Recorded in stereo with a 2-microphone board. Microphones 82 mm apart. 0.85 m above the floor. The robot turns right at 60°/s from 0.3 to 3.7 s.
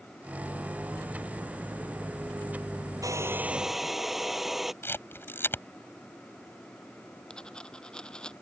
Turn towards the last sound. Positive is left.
turn(degrees=10)  # may be behind; listen again after turning